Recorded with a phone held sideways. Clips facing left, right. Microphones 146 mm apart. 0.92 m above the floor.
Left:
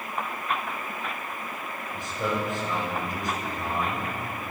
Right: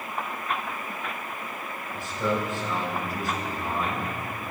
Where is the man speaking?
20° left (ahead or behind), 3.5 m.